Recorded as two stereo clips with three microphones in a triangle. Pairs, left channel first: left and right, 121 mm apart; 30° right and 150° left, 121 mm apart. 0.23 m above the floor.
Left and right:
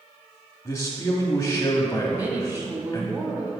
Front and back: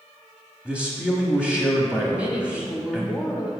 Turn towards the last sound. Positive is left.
turn(degrees=-145)